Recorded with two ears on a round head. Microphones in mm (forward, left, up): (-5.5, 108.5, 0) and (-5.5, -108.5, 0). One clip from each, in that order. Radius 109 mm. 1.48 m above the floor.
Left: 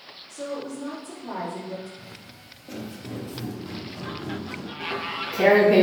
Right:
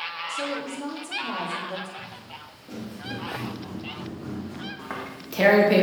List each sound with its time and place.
0.3 s a woman speaking: 70° right (ahead or behind), 3.5 m
2.0 s footsteps: 15° left (ahead or behind), 1.5 m; by 4.7 s 20° left (ahead or behind), 3 m
4.8 s tearing paper: 60° right (ahead or behind), 1.9 m